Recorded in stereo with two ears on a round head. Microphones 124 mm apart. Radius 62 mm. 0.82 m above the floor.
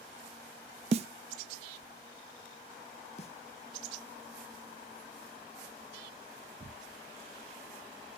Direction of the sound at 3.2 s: 50° left (ahead or behind).